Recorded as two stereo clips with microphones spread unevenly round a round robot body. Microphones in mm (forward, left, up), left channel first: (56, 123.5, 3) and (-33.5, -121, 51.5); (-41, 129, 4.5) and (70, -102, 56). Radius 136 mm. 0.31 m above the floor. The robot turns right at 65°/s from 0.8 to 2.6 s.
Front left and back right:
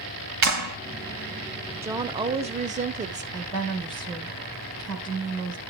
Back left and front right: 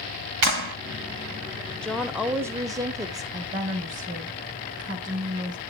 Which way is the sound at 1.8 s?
160° left.